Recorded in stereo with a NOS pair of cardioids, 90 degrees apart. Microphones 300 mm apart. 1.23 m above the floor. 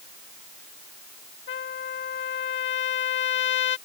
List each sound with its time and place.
1.5 s a trumpet: 40° left